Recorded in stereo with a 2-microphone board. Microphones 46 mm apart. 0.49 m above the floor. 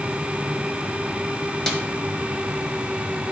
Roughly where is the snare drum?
Centre.